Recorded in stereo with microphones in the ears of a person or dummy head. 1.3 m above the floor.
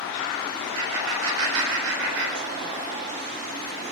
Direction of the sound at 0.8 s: 85° right.